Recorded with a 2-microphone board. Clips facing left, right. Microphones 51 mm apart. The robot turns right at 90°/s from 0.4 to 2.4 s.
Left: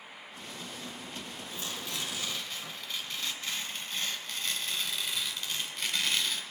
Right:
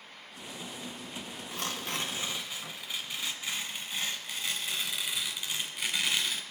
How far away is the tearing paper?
About 2 m.